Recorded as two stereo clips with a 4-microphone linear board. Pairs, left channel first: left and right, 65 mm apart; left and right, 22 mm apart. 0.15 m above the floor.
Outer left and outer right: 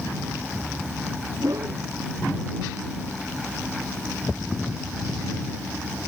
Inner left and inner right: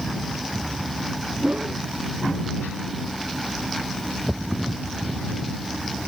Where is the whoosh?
70° right (ahead or behind).